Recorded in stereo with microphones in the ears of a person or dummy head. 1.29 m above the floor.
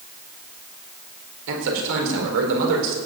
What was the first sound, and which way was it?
A man speaking, 70° right (ahead or behind).